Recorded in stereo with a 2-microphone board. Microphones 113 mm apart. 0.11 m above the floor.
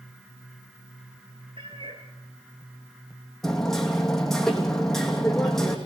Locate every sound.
1.6 s a cat meowing: 50° right (ahead or behind), 2.5 m
3.4 s hammering: 5° left (ahead or behind), 3 m